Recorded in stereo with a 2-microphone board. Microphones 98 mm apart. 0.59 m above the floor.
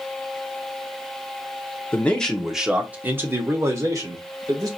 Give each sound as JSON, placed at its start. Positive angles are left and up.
{"t": 1.9, "sound": "a man speaking", "side_deg": 15, "distance_m": 0.9}